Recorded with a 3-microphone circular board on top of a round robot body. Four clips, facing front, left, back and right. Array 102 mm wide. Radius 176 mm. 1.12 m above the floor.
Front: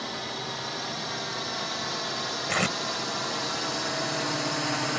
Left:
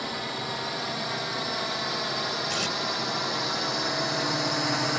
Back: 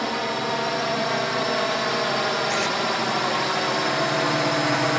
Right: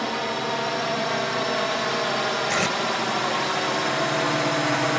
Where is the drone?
145° right.